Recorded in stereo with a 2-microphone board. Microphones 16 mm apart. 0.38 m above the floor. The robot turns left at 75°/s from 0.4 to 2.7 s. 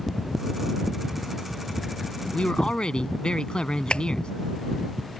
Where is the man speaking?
75° left (ahead or behind); by 4.3 s 60° left (ahead or behind).